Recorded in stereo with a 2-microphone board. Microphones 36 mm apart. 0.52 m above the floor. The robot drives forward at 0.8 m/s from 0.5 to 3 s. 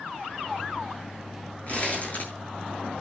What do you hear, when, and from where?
1.7 s crumpling: 40° left (ahead or behind), 8 m